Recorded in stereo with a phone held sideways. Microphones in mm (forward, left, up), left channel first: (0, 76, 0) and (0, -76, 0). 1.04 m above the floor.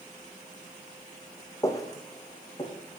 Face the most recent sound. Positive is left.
turn(degrees=30)  # may be behind; listen again after turning